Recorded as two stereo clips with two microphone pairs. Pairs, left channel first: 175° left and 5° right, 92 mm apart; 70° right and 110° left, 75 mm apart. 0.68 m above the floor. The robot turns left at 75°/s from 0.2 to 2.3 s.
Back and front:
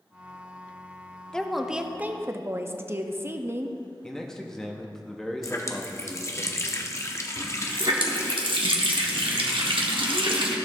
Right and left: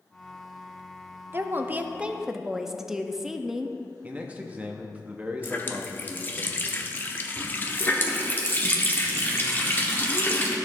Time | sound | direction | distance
1.3 | a woman speaking | 110° left | 0.5 m
4.0 | a man speaking | 110° left | 0.8 m
5.4 | a running tap | 135° right | 0.7 m
7.4 | a running tap | 10° right | 1.0 m